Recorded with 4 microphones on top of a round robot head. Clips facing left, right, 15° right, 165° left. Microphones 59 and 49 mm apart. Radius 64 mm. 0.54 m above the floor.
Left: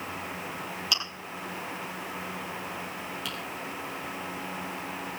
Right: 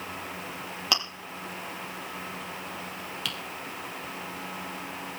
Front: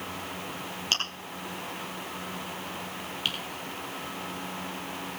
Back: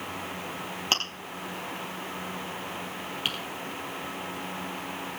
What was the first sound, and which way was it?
Chewing, 135° right.